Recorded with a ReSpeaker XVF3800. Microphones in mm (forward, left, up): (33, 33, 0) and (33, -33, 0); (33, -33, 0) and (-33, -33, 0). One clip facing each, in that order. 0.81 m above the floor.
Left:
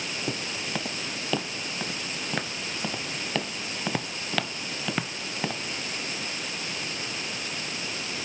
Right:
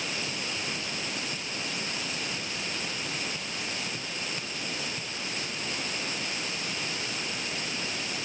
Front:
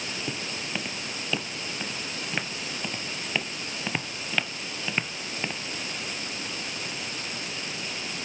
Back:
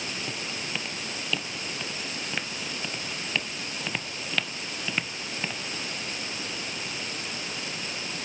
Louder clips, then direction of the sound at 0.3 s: Left 3 dB, front 1 dB; 80° left.